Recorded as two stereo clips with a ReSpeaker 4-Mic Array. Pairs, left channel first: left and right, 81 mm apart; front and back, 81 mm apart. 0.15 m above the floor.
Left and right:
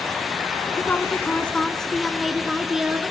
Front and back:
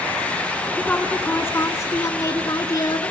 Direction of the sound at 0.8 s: 55° left.